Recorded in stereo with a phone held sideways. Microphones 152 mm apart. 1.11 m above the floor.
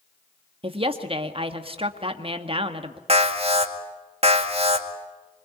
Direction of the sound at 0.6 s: 35° right (ahead or behind).